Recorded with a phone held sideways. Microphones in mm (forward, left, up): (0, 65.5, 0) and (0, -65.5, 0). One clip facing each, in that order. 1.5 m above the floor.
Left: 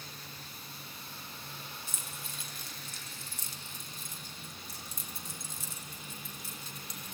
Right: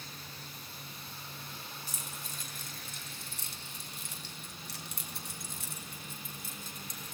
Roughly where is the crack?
No crack in this recording.